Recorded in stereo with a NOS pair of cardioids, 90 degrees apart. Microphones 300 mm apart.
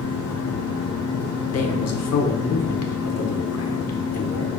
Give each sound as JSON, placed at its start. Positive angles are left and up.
{"t": 0.0, "sound": "a fan", "azimuth_deg": 55, "distance_m": 1.3}
{"t": 1.5, "sound": "a man speaking", "azimuth_deg": 55, "distance_m": 1.1}